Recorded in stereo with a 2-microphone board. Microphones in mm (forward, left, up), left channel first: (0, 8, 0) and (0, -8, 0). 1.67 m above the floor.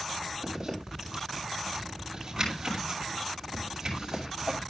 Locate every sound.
0.4 s a zipper: 25° right (ahead or behind), 7.5 m